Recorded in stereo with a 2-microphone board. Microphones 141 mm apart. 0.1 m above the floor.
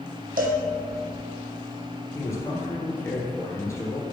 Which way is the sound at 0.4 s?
75° right (ahead or behind).